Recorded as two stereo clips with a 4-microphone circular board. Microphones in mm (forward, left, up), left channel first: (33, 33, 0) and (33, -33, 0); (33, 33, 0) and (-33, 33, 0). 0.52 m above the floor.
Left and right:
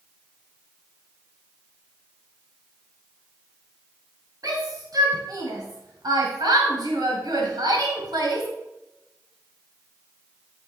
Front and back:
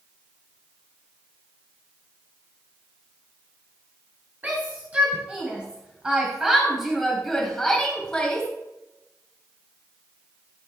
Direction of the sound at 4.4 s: 115° right.